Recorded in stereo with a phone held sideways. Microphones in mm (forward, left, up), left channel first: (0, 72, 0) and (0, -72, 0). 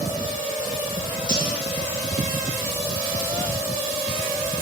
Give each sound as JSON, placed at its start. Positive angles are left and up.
{"t": 1.3, "sound": "cutlery clinking", "side_deg": -30, "distance_m": 1.9}